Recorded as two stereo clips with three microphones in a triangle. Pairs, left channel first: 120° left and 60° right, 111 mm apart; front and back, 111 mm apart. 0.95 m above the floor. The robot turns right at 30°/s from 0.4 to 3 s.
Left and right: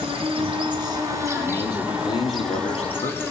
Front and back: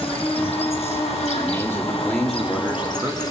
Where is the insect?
30° right, 2.5 m; by 3.3 s 50° left, 2.5 m.